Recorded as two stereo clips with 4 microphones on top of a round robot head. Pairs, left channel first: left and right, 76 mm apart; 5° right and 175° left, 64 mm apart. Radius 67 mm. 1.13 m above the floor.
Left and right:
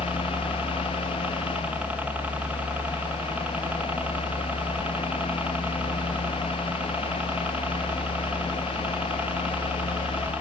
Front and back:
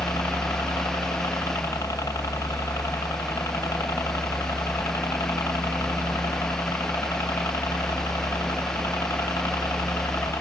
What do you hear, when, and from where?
0.0 s a helicopter: 20° right